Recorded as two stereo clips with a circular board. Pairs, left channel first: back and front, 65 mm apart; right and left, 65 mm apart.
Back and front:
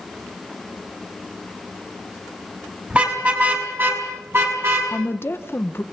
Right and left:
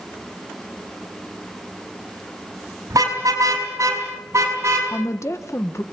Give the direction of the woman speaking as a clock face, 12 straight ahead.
4 o'clock.